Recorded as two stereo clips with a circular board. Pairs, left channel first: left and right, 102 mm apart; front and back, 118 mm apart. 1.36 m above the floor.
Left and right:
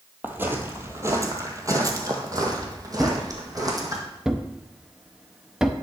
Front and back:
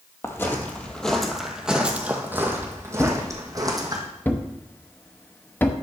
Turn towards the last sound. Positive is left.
turn(degrees=-20)